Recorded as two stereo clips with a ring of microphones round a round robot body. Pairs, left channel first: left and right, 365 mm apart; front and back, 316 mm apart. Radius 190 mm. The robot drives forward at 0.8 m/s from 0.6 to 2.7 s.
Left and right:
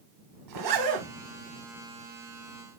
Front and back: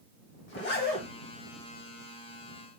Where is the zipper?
60° right, 1.8 m; by 1.1 s 70° right, 1.6 m.